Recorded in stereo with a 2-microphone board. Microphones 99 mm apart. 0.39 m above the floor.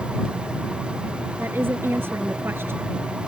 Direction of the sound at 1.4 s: 25° right (ahead or behind).